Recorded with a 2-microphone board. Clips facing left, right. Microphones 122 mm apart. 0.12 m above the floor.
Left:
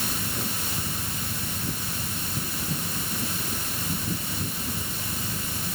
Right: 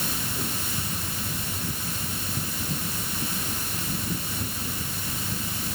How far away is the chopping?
I don't hear chopping.